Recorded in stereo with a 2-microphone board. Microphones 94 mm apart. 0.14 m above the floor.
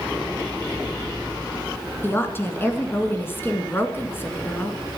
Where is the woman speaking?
25° left (ahead or behind), 2.0 m.